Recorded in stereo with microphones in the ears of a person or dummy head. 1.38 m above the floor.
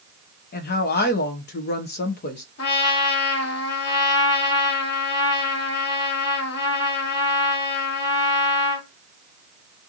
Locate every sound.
0.5 s a woman speaking: 50° left (ahead or behind), 0.6 m
2.6 s a trumpet: 65° left (ahead or behind), 1.6 m